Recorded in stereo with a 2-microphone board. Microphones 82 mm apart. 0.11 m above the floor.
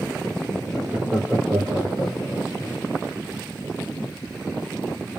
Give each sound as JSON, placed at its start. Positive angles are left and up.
{"t": 0.7, "sound": "laughter", "side_deg": -15, "distance_m": 2.5}